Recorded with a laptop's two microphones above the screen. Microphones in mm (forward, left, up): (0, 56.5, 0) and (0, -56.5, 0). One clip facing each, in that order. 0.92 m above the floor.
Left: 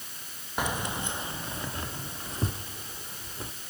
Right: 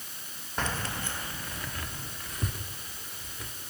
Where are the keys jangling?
10° left (ahead or behind), 0.7 m; by 3.5 s 30° left (ahead or behind), 2.5 m.